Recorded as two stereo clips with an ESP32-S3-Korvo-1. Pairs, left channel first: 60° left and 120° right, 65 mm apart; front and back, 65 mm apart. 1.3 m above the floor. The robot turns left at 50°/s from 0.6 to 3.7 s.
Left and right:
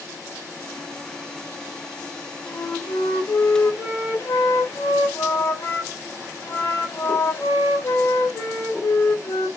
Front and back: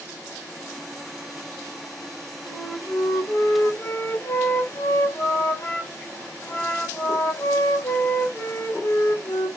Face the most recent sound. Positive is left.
turn(degrees=30)